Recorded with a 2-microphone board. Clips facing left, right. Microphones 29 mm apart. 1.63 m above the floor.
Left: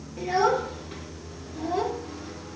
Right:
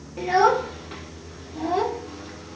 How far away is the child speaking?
About 1.2 m.